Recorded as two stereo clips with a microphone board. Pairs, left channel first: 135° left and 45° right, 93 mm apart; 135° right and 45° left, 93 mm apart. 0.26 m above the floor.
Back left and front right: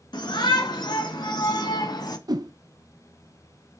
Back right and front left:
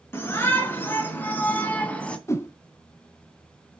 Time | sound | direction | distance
0.1 | a shout | 165° left | 3.5 m
2.3 | a whoosh | 80° right | 0.8 m